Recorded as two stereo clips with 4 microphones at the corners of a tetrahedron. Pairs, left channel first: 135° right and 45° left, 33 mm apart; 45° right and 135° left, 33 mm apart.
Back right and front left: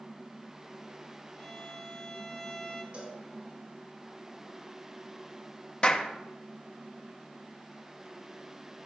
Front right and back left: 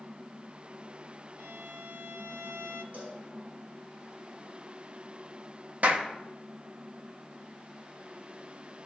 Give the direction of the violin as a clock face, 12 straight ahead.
7 o'clock.